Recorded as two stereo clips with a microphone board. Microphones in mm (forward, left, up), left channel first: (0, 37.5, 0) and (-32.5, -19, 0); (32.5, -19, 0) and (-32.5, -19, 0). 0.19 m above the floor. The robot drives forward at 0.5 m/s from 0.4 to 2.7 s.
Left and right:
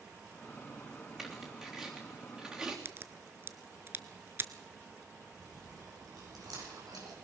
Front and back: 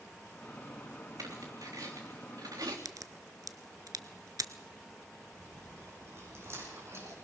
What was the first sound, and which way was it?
Tearing paper, 155° left.